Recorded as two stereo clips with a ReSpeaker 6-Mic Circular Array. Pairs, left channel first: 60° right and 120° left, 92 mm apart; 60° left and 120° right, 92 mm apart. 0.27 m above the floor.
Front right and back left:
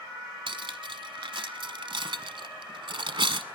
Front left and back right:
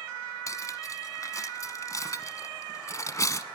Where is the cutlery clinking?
110° left, 1.2 m.